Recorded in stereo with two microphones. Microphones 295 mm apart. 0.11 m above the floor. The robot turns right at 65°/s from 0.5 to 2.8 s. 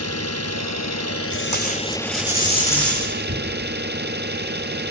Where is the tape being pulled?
80° left, 6.5 m; by 3.2 s 175° left, 6.5 m.